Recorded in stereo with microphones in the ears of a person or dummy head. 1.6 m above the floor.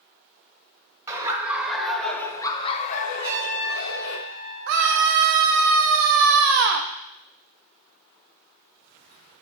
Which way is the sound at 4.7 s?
55° right (ahead or behind).